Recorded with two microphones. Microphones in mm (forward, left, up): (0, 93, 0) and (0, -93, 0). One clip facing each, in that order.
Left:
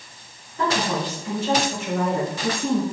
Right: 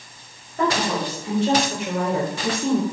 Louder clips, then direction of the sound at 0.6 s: Right 1 dB; 55° right (ahead or behind).